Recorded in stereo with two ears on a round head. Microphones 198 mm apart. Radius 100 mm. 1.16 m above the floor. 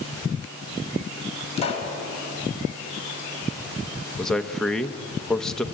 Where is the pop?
30° left (ahead or behind), 4 m.